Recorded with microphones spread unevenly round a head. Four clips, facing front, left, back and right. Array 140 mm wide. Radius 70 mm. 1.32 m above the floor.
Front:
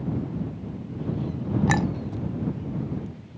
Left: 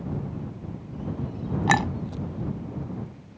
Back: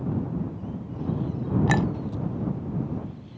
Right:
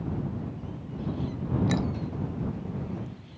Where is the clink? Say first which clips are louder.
Left 9 dB, even; 80° left.